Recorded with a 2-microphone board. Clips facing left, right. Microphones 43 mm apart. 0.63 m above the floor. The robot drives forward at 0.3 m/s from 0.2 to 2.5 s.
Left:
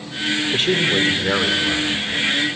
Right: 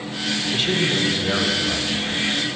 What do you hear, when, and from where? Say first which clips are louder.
0.5 s a man speaking: left 2 dB; 45° left (ahead or behind), 2.5 m; by 2.0 s 40° left (ahead or behind), 2.5 m